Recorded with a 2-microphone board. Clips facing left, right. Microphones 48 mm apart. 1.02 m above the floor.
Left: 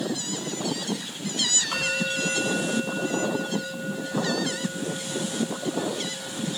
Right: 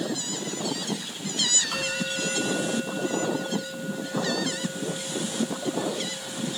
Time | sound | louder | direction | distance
1.7 | a bell | left 2 dB | 10° left (ahead or behind) | 6 m